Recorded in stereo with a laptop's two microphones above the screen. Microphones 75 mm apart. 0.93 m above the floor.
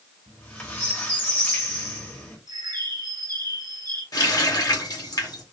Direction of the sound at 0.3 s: 20° left (ahead or behind).